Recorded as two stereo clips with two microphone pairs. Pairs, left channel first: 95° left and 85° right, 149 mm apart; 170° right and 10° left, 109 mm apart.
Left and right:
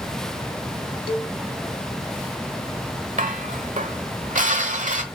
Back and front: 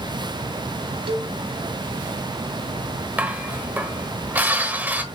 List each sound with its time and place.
1.1 s a cowbell: 40° left, 0.8 m
3.2 s dishes clattering: 60° right, 1.3 m